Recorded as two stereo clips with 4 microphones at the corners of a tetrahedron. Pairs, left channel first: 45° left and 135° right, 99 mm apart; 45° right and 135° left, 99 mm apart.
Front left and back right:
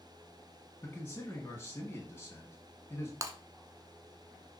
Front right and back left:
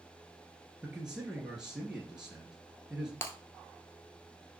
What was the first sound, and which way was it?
A man speaking, 65° left.